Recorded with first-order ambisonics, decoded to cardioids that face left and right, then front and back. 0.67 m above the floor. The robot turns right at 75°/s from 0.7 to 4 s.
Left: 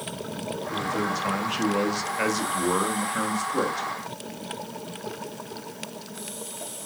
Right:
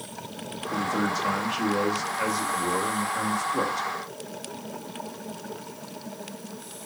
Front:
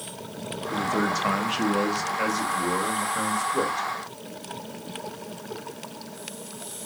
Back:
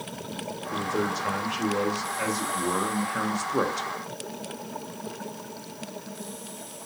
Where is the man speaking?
40° right, 1.5 m; by 3.9 s 160° right, 1.5 m.